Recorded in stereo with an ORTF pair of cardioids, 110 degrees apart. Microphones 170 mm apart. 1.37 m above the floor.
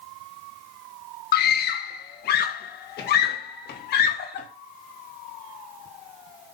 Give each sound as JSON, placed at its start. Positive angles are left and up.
{"t": 1.3, "sound": "a scream", "azimuth_deg": 65, "distance_m": 1.2}